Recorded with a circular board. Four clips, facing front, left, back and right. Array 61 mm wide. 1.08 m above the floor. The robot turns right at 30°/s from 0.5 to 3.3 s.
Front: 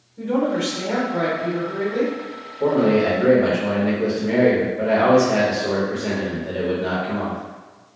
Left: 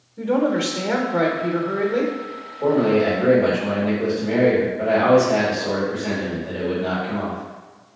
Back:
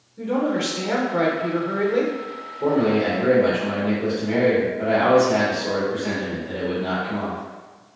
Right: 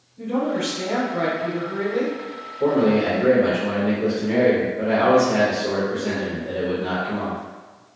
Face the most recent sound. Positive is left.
turn(degrees=-10)